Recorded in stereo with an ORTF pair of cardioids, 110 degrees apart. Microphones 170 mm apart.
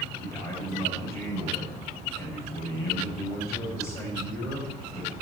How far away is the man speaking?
About 7 m.